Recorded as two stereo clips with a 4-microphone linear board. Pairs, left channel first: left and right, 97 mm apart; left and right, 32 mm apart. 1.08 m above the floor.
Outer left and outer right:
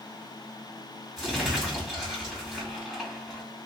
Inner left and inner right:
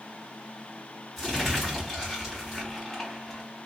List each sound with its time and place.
1.2 s crumpling: centre (ahead or behind), 2.5 m